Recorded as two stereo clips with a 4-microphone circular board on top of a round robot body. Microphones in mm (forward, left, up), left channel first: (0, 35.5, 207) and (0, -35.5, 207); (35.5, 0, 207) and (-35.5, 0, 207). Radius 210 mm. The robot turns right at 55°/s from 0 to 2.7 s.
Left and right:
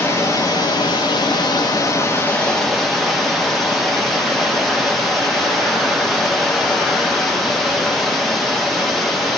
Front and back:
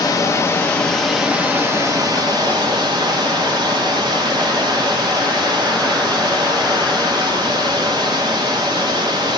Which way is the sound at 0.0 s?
30° left.